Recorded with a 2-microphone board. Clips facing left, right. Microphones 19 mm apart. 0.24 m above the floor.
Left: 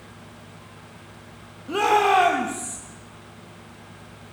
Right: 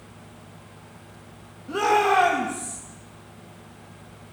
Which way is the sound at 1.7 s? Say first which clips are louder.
Left 2 dB; 80° left.